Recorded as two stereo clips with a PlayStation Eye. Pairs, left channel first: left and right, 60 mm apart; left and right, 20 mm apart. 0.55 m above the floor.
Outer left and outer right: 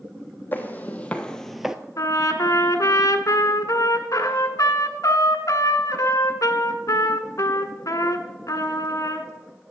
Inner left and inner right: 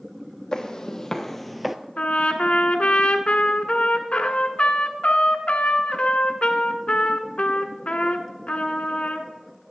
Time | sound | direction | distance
0.5 | footsteps | 30° left (ahead or behind) | 1.6 m
2.0 | a trumpet | 70° left (ahead or behind) | 1.2 m